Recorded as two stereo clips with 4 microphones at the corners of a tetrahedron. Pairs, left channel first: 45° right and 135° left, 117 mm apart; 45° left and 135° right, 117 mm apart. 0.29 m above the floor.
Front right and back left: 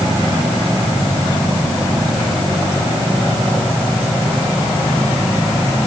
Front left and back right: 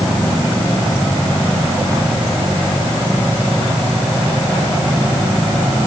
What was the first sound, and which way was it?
Only background noise.